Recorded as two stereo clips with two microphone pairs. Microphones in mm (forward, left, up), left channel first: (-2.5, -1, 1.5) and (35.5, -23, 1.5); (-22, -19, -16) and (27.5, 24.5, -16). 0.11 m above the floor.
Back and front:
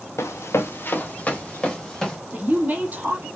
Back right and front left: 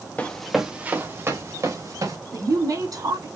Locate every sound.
0.2 s running footsteps: 150° left, 1.2 m; by 2.2 s 75° left, 3 m
2.3 s a woman speaking: 25° left, 3 m